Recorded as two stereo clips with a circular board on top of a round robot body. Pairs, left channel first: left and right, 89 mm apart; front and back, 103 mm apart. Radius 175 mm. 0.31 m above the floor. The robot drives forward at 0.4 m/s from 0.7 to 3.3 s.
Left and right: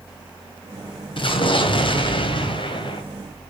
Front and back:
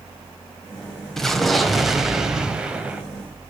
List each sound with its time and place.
1.2 s an explosion: 85° left, 2.5 m; by 3.0 s 105° left, 3 m